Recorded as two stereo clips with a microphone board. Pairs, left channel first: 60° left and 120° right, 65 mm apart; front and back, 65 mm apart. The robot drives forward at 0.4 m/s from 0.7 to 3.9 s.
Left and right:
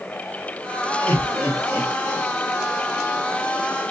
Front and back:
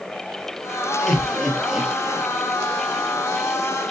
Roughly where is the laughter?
Ahead left.